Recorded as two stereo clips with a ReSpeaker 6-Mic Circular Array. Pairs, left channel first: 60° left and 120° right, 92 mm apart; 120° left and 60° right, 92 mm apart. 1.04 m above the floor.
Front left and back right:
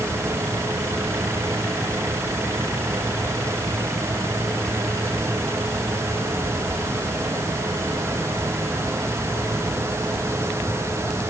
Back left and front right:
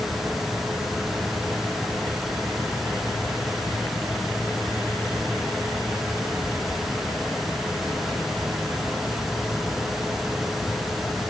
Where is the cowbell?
No cowbell in this recording.